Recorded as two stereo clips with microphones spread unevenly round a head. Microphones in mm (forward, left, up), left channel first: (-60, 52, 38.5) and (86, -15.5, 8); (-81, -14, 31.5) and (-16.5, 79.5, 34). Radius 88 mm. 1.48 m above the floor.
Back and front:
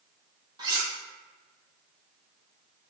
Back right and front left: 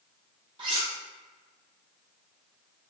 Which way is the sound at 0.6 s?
40° left.